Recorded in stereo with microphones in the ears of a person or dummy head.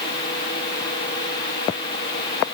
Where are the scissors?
I don't hear scissors.